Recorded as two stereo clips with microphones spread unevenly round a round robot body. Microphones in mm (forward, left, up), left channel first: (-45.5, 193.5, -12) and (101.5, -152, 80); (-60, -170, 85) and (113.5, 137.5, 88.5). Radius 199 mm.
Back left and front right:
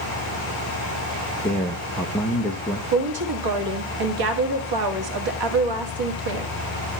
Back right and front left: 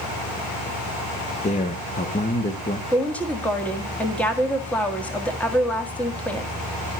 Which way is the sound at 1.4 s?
Straight behind.